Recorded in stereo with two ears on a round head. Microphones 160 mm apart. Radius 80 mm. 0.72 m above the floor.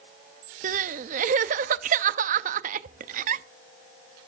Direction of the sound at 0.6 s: 45° right (ahead or behind).